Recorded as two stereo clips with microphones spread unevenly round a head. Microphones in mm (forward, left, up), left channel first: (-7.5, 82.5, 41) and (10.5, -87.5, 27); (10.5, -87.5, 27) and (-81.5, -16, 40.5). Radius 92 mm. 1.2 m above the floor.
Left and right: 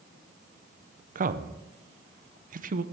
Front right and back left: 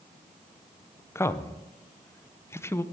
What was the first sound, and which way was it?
A man speaking, 95° right.